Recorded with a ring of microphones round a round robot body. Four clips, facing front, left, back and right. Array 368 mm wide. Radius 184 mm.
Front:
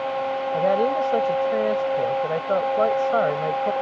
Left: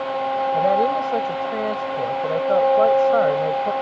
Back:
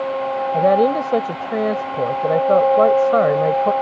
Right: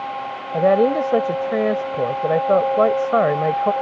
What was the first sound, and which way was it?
A woman speaking, 135° right.